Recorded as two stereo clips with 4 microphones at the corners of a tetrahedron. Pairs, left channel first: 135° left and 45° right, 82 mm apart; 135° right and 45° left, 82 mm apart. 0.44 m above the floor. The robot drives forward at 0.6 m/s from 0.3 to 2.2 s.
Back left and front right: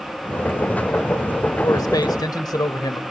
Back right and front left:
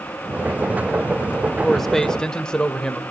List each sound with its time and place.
1.6 s a man speaking: 135° left, 1.4 m; by 3.0 s 145° left, 1.6 m